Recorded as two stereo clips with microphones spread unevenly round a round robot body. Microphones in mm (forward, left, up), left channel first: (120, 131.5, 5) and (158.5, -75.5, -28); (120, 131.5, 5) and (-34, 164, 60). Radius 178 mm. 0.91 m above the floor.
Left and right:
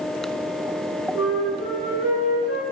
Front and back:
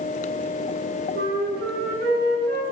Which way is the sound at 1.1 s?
165° left.